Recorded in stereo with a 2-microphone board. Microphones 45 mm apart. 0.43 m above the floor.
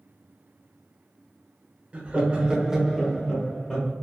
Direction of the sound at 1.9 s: 30° right (ahead or behind).